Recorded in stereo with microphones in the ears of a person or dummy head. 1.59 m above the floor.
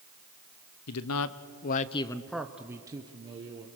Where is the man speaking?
80° left, 1.1 m; by 3.7 s 35° right (ahead or behind), 1.8 m.